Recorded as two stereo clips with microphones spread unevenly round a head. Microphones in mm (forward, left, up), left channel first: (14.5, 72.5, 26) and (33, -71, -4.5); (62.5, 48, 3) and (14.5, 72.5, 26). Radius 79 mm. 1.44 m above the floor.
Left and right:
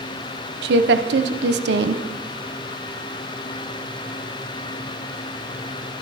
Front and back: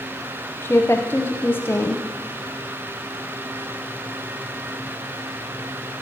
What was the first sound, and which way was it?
A woman speaking, 95° right.